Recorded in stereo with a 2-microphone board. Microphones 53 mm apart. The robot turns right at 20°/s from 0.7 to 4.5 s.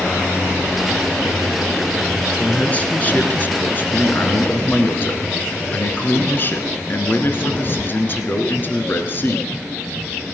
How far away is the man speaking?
About 1.8 m.